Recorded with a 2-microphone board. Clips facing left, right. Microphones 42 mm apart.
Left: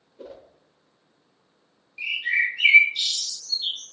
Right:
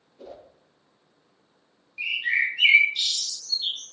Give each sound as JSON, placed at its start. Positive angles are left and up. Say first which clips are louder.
{"t": 0.2, "sound": "a whoosh", "louder": "left 1 dB", "side_deg": 25, "distance_m": 1.0}
{"t": 2.0, "sound": "a bird", "louder": "left 1 dB", "side_deg": -15, "distance_m": 1.0}